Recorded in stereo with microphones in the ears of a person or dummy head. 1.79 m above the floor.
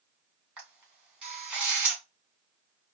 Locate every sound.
0.6 s a camera shutter: 5° right (ahead or behind), 2 m